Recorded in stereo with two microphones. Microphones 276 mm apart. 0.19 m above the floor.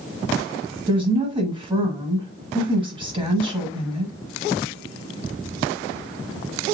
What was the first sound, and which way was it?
A woman speaking, 20° right (ahead or behind).